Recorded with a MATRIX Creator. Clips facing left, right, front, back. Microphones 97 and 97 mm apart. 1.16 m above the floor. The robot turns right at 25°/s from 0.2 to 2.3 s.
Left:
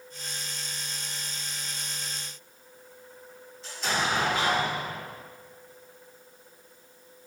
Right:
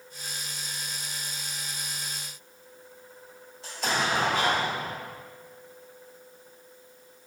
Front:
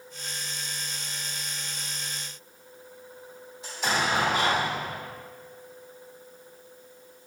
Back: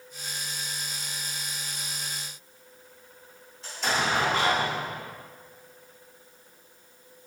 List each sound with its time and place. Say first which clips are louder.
3.6 s an explosion: right 1 dB, even; 75° right, 1.7 m